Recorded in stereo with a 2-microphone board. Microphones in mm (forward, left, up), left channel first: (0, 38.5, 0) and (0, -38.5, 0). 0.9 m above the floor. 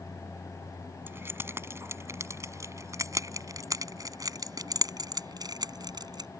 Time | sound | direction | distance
1.1 | keys jangling | 30° right (ahead or behind) | ?